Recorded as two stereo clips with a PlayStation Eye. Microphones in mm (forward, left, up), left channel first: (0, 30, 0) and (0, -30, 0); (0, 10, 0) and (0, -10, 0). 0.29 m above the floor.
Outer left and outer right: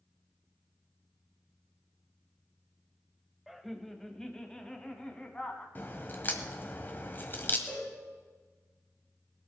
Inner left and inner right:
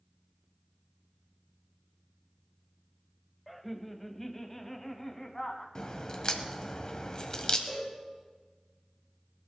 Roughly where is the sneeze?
No sneeze in this recording.